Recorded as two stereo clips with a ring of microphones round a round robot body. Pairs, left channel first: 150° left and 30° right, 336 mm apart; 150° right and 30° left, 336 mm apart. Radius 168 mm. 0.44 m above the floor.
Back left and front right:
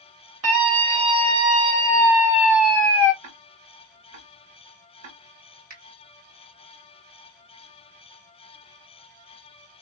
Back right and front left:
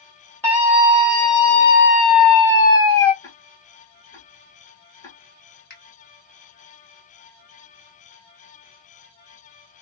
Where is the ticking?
70° right, 1.3 m.